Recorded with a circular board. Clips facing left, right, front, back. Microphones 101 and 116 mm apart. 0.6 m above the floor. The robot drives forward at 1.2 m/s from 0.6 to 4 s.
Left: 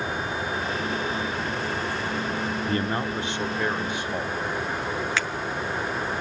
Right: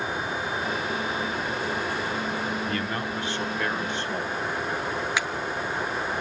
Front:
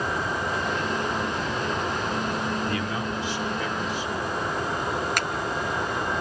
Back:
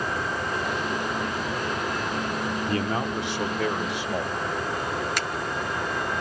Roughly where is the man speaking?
Behind left.